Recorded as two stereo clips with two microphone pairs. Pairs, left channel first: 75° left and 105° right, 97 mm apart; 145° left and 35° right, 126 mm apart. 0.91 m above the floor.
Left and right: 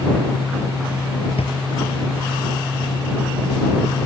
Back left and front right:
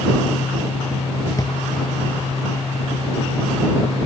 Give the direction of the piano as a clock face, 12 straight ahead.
No piano in this recording.